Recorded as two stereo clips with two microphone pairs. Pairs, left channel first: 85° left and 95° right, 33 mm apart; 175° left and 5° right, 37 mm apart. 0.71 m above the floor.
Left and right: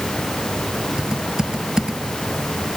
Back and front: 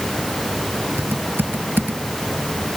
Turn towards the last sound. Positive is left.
turn(degrees=-25)